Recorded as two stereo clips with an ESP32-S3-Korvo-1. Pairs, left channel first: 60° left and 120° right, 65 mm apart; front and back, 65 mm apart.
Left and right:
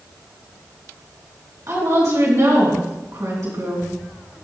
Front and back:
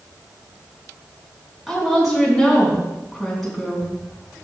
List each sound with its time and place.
1.7 s a woman speaking: 90° right, 4 m